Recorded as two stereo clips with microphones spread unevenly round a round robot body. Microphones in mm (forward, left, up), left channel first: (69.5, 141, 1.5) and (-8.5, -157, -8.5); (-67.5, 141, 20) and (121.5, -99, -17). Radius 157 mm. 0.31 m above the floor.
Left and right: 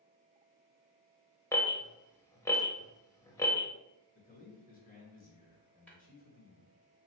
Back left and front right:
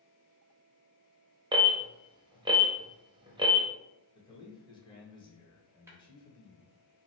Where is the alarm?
Straight ahead, 0.6 m.